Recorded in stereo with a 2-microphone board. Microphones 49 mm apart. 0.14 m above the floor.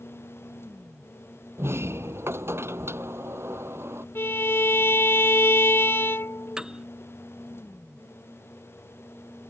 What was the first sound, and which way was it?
A sliding door, 60° right (ahead or behind).